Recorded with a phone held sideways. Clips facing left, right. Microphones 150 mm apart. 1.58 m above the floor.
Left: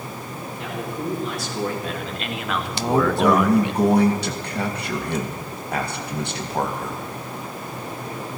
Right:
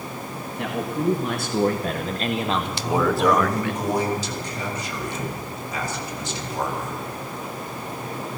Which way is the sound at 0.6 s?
65° right (ahead or behind).